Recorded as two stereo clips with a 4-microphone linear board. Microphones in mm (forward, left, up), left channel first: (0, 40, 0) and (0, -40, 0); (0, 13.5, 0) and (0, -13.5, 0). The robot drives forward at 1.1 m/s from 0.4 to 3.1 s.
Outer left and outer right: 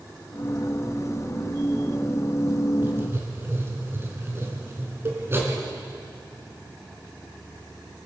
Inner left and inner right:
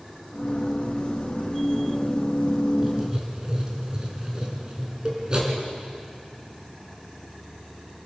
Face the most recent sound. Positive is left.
turn(degrees=-70)  # may be behind; listen again after turning